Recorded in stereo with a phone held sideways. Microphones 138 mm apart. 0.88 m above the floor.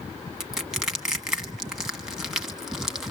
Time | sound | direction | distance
0.4 | crushing | 5° right (ahead or behind) | 1.5 m